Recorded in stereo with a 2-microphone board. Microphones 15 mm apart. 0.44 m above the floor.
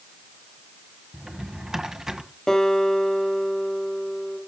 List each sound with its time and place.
1.1 s a drawer: 55° right (ahead or behind), 1.6 m
2.5 s a guitar: 55° left (ahead or behind), 5.5 m